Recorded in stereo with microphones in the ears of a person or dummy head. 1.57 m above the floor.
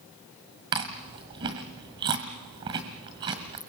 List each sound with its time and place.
0.7 s chewing: 25° right (ahead or behind), 1.7 m